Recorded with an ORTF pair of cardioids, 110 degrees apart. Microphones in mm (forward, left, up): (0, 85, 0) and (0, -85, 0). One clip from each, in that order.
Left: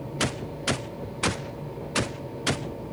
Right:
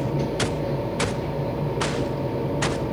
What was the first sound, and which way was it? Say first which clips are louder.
A machine running: right 5 dB; 60° right.